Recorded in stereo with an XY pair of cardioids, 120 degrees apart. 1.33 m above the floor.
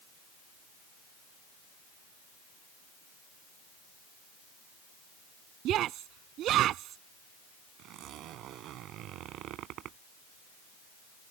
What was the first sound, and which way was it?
A shout, 65° right.